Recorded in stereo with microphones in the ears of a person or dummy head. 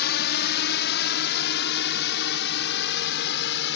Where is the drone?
60° left (ahead or behind); by 3.8 s 65° left (ahead or behind).